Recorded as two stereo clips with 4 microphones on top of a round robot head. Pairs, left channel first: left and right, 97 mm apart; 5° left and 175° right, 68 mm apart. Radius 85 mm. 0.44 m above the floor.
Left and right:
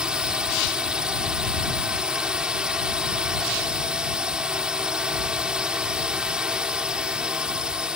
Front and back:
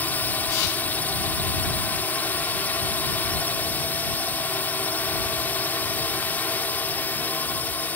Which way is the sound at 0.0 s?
20° right.